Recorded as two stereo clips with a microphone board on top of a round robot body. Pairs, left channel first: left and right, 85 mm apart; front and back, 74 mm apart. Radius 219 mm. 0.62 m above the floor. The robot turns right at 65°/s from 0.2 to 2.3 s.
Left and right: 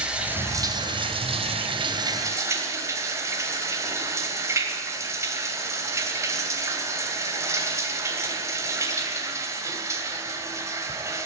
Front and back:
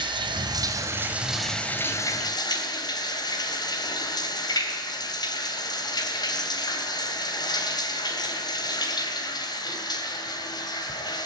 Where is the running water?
170° right, 3 m; by 11.3 s 30° right, 3 m.